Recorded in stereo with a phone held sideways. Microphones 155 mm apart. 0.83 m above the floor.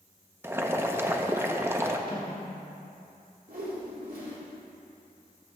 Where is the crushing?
No crushing in this recording.